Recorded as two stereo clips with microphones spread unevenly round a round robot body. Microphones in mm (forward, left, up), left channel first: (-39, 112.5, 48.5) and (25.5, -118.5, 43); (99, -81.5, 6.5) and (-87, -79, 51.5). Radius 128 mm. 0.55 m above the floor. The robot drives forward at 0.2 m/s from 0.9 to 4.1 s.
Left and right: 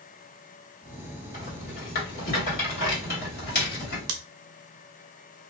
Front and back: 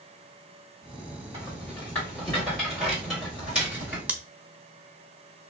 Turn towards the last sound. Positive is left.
turn(degrees=-100)